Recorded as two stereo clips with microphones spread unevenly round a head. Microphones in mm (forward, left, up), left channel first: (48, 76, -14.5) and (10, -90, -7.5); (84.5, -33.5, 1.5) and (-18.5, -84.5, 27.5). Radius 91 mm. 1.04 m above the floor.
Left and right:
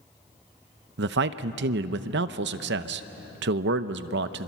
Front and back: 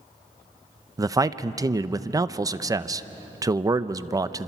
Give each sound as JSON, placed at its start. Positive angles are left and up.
{"t": 1.0, "sound": "a man speaking", "azimuth_deg": -90, "distance_m": 0.8}